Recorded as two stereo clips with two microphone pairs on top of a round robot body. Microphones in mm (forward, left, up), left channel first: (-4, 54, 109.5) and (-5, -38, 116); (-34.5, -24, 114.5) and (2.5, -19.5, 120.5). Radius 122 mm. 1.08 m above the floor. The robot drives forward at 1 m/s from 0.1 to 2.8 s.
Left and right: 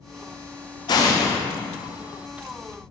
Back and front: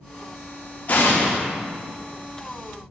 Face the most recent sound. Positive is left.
turn(degrees=165)